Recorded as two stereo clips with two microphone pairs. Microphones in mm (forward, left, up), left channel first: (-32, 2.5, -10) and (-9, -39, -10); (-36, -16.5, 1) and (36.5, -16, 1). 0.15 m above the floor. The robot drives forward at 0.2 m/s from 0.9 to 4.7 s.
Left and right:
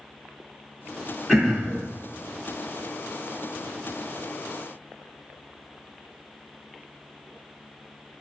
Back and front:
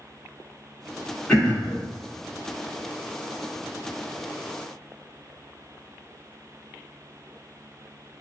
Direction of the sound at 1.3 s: 130° right.